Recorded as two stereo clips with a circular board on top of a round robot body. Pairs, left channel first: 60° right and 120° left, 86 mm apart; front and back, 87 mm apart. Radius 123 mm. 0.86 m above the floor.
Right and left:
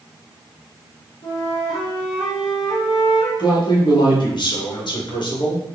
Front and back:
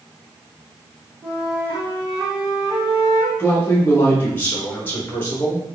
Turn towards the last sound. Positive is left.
turn(degrees=-65)